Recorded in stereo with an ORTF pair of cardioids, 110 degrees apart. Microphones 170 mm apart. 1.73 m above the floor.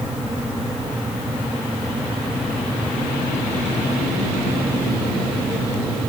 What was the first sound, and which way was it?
A fan, 5° right.